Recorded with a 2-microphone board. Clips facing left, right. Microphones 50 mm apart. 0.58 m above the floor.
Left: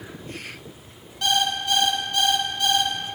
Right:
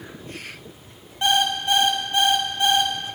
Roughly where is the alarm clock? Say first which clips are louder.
Right 2 dB; right.